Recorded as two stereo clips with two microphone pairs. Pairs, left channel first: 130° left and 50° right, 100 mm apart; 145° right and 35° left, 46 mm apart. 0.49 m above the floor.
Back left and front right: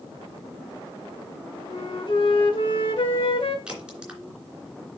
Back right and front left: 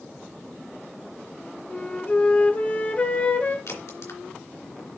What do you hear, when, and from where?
1.7 s a flute: 160° left, 1.0 m
3.7 s a crack: 130° right, 3 m